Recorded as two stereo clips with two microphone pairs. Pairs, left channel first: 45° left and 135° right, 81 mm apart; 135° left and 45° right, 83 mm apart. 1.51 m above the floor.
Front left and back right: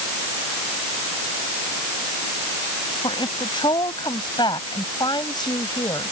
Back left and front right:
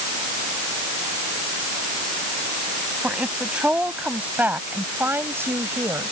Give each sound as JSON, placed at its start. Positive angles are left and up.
{"t": 3.0, "sound": "a woman speaking", "azimuth_deg": 35}